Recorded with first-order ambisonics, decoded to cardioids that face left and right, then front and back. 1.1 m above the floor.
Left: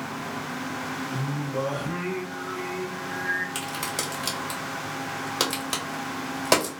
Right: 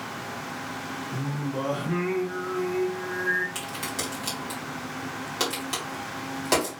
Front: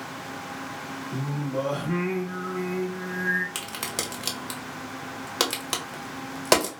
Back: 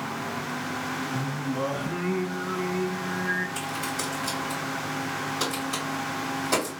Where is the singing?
15° right, 1.6 m.